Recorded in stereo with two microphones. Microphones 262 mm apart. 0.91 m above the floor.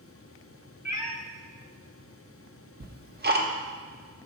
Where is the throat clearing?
No throat clearing in this recording.